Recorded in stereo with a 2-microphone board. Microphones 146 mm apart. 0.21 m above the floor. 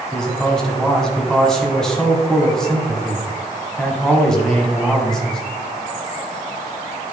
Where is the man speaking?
5° left (ahead or behind), 2.0 m.